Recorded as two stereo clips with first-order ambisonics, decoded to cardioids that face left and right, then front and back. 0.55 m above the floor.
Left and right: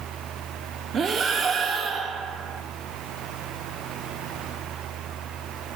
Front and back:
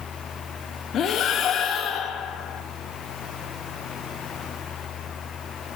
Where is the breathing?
35° right, 0.9 m.